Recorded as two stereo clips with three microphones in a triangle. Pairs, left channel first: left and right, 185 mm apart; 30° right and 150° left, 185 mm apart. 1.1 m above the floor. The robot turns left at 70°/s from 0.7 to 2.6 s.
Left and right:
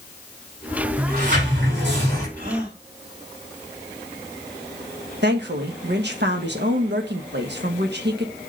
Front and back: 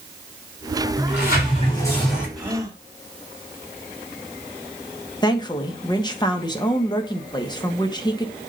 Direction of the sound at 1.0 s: 40° right.